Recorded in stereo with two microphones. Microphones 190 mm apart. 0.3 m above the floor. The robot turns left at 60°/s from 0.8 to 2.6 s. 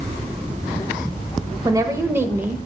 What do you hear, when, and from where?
1.6 s a woman speaking: 20° right (ahead or behind), 0.9 m; by 2.7 s 5° right (ahead or behind), 0.9 m